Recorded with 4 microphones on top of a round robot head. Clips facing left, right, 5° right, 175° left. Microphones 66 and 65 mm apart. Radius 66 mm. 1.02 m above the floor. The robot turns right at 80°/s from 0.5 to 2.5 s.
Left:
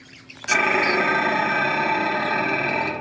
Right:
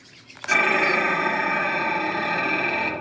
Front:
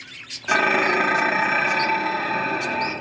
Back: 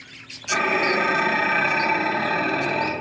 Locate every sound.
0.5 s dishes clattering: straight ahead, 0.8 m; by 2.9 s 160° left, 0.8 m